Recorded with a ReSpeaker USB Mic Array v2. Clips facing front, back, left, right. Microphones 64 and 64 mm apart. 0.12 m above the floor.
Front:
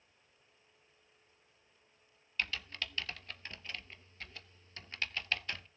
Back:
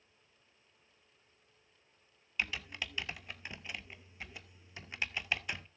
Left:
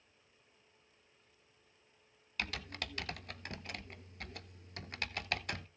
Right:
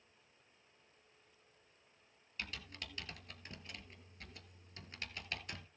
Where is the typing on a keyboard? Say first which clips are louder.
Back 1 dB, left 6 dB; 105° left, 0.5 m.